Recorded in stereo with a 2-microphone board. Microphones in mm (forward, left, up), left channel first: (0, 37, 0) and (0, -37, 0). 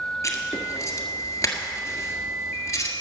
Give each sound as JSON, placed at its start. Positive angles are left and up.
{"t": 0.2, "sound": "writing", "side_deg": 40, "distance_m": 1.5}